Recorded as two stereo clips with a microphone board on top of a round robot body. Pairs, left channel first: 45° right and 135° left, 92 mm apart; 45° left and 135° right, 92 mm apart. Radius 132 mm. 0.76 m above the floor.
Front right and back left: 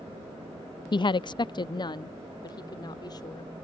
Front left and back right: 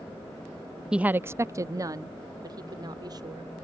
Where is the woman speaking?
55° right; by 3.5 s 90° right.